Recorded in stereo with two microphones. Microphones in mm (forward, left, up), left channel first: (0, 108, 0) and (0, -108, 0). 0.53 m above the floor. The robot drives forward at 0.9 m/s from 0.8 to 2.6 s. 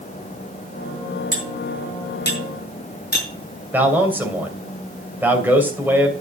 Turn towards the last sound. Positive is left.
turn(degrees=-10)  # may be behind; listen again after turning